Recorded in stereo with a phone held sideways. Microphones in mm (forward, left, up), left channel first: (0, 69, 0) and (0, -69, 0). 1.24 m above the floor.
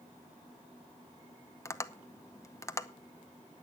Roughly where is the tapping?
Left.